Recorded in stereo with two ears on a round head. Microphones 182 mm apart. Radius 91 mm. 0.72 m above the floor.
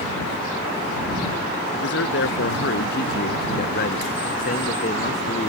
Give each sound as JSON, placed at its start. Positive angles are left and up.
{"t": 1.7, "sound": "a man speaking", "side_deg": 65}